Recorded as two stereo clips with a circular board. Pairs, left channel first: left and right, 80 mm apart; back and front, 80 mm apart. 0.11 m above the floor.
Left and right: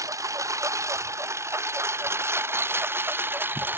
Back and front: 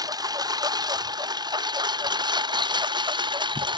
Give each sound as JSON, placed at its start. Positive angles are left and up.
{"t": 0.0, "sound": "a lawn mower", "azimuth_deg": -40}